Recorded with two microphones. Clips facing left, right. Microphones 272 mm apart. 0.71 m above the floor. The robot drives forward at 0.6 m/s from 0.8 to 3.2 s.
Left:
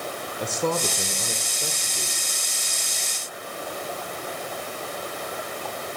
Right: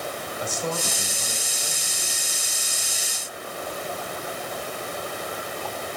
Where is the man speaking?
65° left (ahead or behind), 2.5 m; by 2.2 s 55° left (ahead or behind), 3 m.